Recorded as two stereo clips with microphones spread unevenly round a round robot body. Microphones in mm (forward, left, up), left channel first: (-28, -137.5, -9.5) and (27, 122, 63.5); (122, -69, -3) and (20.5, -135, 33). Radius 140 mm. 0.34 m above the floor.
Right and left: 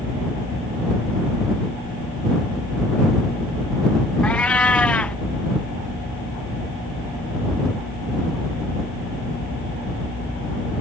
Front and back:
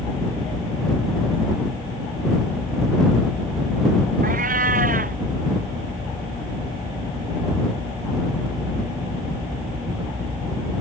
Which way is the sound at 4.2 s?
170° left.